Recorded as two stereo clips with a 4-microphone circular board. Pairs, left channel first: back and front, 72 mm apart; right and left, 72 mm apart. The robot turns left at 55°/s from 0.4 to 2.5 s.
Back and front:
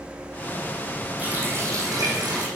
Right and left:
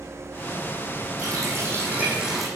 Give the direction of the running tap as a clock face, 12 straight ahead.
10 o'clock.